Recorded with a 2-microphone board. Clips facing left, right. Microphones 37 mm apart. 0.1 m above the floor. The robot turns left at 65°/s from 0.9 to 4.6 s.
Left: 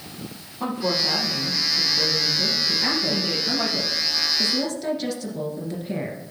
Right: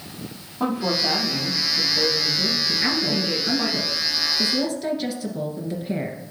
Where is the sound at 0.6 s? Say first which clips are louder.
Right 2 dB; 40° right, 4.5 m; by 3.7 s 140° left, 4.5 m.